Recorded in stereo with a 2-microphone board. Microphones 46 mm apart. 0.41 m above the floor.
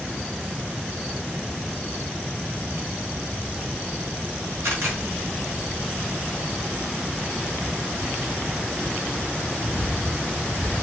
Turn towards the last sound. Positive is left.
turn(degrees=-65)  # may be behind; listen again after turning